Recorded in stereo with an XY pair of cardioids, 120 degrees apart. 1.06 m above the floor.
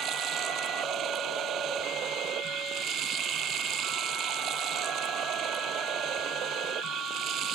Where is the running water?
65° right.